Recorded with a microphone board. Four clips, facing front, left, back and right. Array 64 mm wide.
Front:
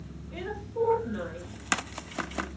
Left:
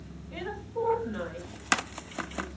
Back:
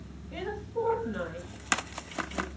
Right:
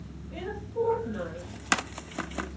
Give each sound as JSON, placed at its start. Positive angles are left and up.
{"t": 0.3, "sound": "a woman speaking", "azimuth_deg": 140, "distance_m": 1.3}